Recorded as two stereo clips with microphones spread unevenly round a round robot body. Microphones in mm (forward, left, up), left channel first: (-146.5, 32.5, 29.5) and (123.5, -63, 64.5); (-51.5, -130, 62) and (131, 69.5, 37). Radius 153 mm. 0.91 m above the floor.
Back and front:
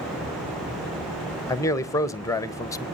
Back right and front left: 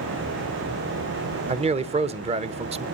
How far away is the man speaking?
About 0.9 m.